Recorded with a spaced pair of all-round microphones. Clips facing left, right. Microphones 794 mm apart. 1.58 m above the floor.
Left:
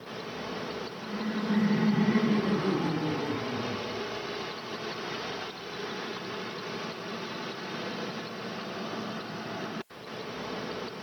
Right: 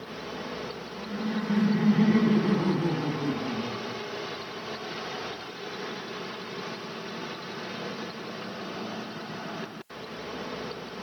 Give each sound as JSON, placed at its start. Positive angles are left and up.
{"t": 1.0, "sound": "laughter", "side_deg": -20, "distance_m": 2.5}